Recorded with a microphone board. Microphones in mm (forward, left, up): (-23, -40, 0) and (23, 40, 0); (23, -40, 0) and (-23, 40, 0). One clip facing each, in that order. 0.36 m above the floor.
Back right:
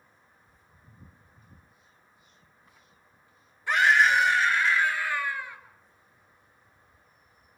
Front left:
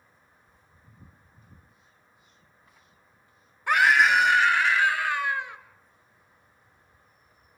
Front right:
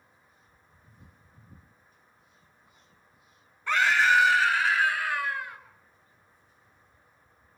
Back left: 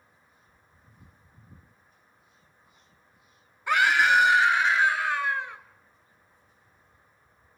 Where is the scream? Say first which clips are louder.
Front left 1 dB, back left 1 dB; 40° left, 3 m; by 5.6 s 60° left, 4 m.